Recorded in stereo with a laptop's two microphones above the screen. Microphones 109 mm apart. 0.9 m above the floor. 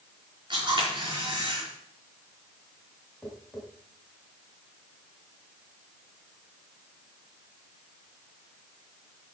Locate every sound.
0.5 s a camera shutter: 45° right (ahead or behind), 4.5 m
3.2 s tapping: 10° left (ahead or behind), 4 m